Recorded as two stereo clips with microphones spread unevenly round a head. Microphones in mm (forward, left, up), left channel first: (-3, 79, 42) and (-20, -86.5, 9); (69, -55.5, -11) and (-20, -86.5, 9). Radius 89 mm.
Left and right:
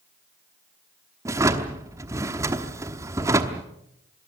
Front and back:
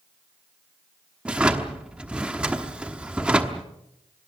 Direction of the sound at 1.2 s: 175° right.